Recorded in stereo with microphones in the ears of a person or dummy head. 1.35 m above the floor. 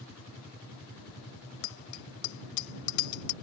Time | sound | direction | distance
1.6 | a bicycle bell | 65° left (ahead or behind) | ?